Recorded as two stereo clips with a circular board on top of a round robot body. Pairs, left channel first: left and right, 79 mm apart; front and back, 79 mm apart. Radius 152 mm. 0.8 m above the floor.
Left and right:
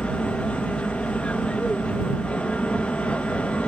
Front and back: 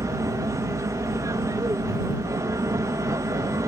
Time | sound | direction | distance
0.0 | an aircraft | 160° left | ?